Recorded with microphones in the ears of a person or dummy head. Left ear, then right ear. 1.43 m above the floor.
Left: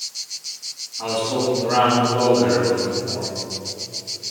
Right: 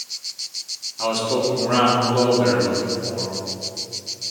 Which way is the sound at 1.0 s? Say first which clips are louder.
Right 1 dB; 75° right (ahead or behind).